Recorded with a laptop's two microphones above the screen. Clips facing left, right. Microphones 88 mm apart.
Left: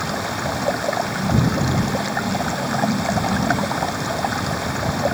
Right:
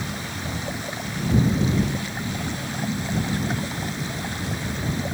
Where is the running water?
75° left (ahead or behind).